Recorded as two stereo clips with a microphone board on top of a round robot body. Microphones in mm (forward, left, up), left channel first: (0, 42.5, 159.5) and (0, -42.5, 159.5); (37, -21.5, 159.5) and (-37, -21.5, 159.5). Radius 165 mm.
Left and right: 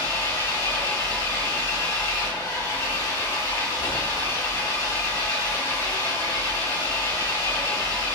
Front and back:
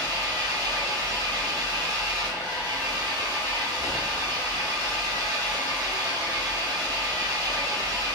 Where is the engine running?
140° left, 3 m.